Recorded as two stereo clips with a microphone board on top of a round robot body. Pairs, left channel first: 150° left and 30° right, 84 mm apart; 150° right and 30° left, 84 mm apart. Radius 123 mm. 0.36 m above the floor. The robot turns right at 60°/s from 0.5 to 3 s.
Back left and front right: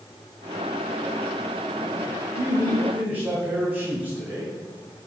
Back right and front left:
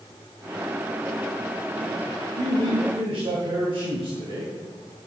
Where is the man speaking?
Straight ahead, 3.5 m; by 4.5 s 40° left, 3.5 m.